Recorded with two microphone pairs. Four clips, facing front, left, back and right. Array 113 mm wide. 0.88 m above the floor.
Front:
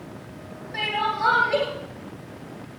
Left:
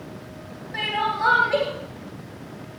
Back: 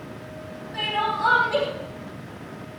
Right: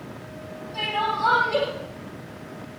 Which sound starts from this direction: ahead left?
Crying, at 0.7 s.